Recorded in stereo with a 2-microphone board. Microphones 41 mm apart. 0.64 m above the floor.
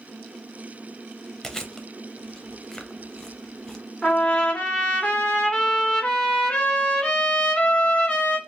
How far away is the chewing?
About 0.6 m.